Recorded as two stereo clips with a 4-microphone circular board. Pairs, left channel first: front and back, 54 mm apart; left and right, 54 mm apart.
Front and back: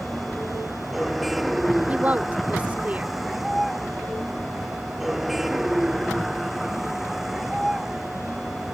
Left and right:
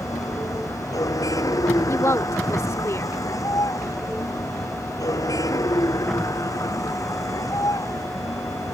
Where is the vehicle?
90° left; by 8.8 s 95° left.